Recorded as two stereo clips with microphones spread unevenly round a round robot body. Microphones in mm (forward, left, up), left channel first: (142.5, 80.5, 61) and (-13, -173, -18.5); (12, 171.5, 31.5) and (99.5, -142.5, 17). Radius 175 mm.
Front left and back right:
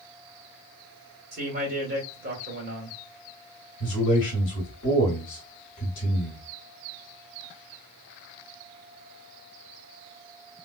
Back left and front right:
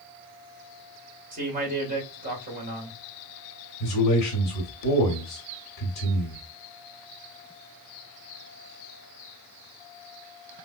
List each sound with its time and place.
1.3 s a man speaking: 130° right, 2.0 m
3.8 s a man speaking: 115° left, 1.1 m